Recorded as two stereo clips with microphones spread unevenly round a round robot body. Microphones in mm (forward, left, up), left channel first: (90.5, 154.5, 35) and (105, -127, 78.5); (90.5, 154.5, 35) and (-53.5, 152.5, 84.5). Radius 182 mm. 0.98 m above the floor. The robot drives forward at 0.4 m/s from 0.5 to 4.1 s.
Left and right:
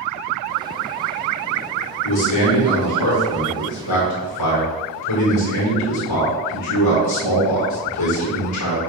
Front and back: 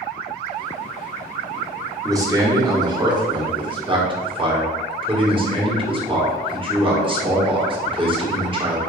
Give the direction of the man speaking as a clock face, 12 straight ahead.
8 o'clock.